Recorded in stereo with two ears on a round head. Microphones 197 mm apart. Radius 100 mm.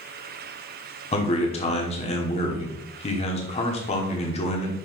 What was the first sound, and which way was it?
A man speaking, 30° left (ahead or behind).